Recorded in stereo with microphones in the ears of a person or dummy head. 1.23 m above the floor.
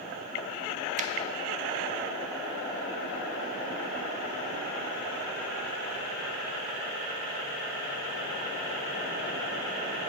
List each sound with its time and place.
1.0 s a finger snap: 35° right (ahead or behind), 0.5 m